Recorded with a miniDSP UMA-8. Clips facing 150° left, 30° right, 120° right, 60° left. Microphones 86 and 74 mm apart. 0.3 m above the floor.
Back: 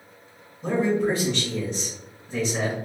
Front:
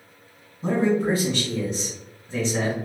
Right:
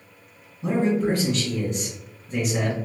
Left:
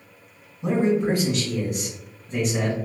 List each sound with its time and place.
0.6 s a man speaking: 15° left, 1.6 m; by 2.8 s 175° left, 1.5 m